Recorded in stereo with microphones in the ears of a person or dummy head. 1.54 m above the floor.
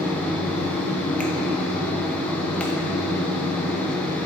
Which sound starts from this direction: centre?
A fan, at 0.0 s.